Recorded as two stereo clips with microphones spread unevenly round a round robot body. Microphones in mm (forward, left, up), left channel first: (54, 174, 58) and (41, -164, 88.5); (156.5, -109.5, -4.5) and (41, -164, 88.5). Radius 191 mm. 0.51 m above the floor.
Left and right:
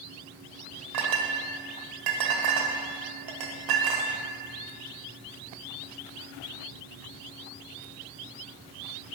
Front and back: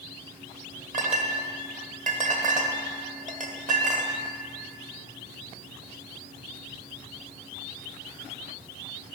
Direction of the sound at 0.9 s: 120° right.